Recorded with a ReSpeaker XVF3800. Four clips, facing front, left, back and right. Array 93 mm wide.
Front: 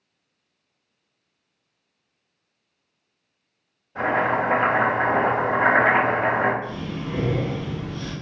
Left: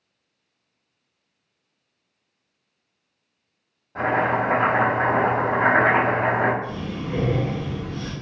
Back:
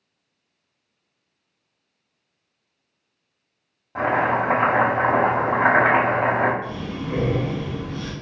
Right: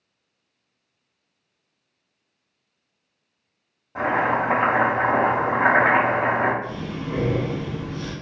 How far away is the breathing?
About 1.4 m.